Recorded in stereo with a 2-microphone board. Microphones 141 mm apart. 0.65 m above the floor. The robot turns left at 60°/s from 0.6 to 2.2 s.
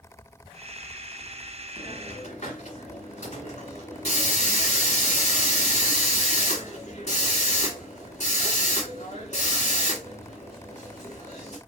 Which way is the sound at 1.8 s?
80° left.